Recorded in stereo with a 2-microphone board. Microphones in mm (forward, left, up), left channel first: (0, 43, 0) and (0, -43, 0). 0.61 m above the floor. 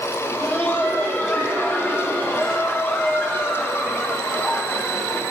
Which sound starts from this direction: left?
Laughter, at 0.2 s.